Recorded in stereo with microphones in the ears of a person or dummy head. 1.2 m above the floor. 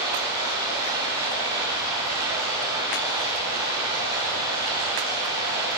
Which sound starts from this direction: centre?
Running water, at 0.0 s.